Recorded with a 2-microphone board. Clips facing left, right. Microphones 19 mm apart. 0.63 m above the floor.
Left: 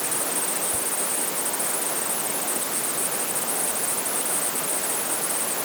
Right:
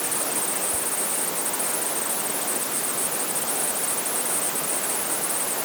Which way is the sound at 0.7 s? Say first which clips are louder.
Even; 70° left (ahead or behind).